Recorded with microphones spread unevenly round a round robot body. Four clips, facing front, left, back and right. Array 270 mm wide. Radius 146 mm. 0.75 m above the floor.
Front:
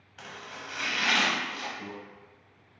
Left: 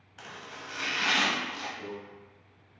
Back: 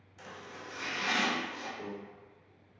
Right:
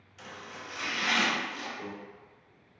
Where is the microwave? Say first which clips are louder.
Right 1 dB, even; 170° left, 1.5 m.